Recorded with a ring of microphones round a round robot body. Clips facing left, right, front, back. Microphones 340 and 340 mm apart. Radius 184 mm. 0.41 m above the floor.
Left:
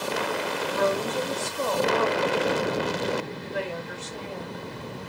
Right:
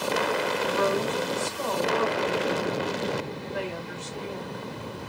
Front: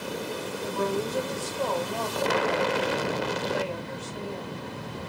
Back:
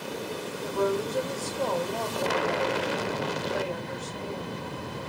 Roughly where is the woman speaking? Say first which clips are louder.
Left 1 dB, back 2 dB; left.